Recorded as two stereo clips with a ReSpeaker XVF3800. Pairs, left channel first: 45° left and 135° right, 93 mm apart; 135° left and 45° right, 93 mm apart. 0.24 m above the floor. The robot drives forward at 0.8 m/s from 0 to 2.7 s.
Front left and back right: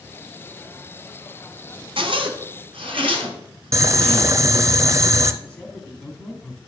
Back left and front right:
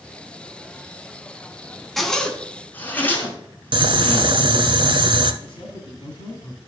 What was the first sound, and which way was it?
A zipper, 135° right.